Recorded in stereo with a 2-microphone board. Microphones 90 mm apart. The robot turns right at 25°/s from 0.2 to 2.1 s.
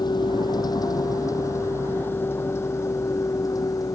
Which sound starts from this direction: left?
A vehicle, at 0.0 s.